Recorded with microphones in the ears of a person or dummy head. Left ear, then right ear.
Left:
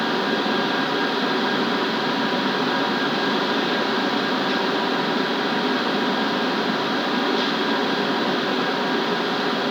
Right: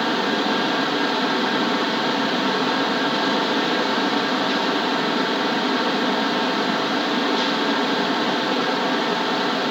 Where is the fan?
5° right (ahead or behind), 0.9 m.